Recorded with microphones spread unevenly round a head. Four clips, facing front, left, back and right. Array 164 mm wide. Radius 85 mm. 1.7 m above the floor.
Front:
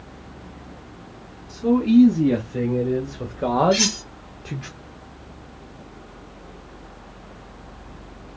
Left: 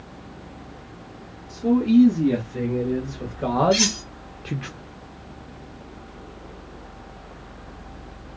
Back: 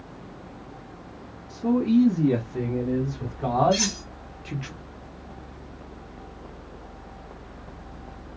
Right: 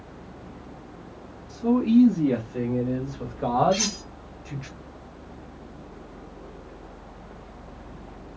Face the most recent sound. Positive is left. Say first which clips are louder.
# left 3 dB, front 3 dB
turn(degrees=25)